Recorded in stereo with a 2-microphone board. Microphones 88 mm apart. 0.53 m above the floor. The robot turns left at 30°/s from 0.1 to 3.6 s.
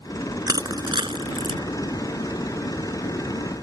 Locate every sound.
0.5 s crushing: 45° right (ahead or behind); by 1.6 s 80° right